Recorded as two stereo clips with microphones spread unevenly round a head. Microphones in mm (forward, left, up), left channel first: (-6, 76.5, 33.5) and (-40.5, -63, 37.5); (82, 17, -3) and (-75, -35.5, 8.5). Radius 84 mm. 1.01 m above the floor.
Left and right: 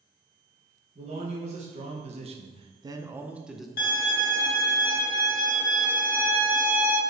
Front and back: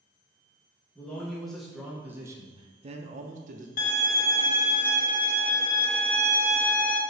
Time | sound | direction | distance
0.9 | a man speaking | 60° right | 1.5 m
3.8 | a violin | 50° left | 1.1 m